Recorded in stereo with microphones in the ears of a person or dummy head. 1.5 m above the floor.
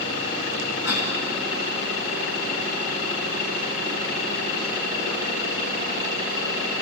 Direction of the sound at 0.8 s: 50° left (ahead or behind).